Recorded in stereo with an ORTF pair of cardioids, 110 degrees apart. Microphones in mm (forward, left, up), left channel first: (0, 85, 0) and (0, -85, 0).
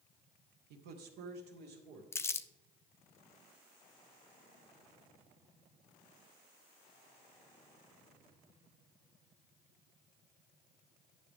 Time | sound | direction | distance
0.7 | a man speaking | 70° right | 1.4 m
2.1 | crumpling | 15° left | 0.5 m